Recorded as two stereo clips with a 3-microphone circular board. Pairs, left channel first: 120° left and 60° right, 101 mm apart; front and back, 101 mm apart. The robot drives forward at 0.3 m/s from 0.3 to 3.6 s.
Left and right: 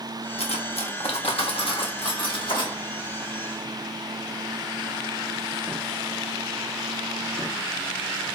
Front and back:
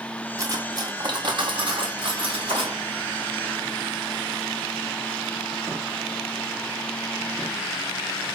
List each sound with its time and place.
0.4 s cutlery clinking: 120° left, 0.6 m; by 2.8 s 155° left, 1.2 m